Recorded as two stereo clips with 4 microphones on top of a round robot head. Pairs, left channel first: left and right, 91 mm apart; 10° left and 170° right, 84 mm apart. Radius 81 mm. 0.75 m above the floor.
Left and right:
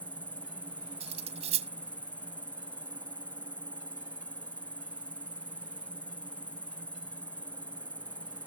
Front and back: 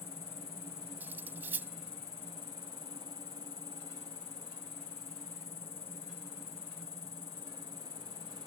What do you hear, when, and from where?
0.0 s an insect: 15° left
1.0 s cutlery clinking: 95° right